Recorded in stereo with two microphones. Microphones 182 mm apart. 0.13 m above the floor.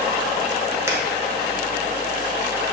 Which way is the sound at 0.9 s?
15° right (ahead or behind).